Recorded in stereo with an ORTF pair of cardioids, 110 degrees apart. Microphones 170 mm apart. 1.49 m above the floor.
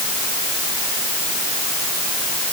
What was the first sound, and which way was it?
Only background noise.